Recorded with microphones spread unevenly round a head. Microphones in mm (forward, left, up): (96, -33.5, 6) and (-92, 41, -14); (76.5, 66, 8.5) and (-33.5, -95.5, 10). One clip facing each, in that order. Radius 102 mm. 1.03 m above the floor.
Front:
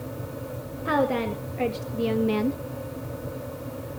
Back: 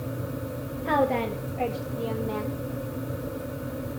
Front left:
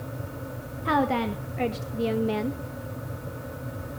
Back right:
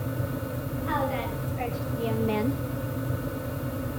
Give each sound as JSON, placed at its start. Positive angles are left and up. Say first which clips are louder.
{"t": 0.8, "sound": "a woman speaking", "louder": "front 1 dB, front left 6 dB", "azimuth_deg": 60, "distance_m": 1.4}